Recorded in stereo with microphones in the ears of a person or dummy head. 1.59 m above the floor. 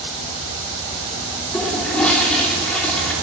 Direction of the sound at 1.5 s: 5° left (ahead or behind).